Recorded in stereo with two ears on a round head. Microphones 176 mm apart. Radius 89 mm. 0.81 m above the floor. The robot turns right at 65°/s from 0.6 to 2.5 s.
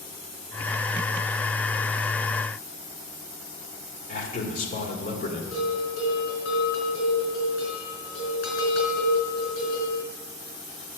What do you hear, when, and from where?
4.1 s a man speaking: 40° left (ahead or behind), 2.5 m
5.5 s a bell: 75° left (ahead or behind), 4.5 m